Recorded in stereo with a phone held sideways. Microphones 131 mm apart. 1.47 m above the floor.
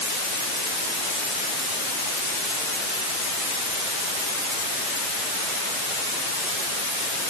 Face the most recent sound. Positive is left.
No sound to turn to.